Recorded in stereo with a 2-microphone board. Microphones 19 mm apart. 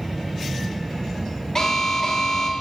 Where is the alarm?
25° left (ahead or behind), 1.2 m.